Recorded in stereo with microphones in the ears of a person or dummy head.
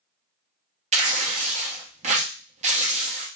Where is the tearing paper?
30° right (ahead or behind), 0.6 m.